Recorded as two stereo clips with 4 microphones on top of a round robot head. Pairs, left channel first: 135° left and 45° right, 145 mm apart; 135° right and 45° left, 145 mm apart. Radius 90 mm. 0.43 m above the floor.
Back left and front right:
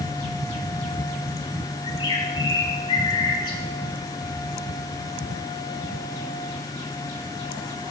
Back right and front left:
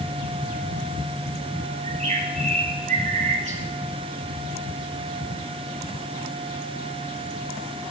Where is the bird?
80° left, 3.5 m.